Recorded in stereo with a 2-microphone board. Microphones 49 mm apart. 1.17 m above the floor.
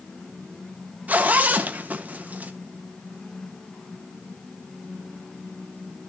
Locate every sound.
1.1 s a zipper: 35° right (ahead or behind), 1.1 m